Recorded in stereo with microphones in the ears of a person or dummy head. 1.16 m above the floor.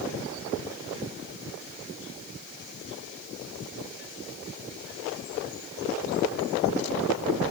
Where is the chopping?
I don't hear chopping.